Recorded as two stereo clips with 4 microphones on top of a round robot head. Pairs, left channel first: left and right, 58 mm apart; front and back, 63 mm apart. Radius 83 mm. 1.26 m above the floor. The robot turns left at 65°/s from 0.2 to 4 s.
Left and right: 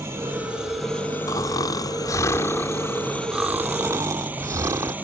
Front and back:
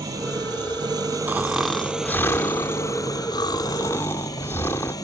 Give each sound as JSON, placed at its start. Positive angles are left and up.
{"t": 0.0, "sound": "an engine running", "azimuth_deg": -145}
{"t": 1.3, "sound": "snoring", "azimuth_deg": 120}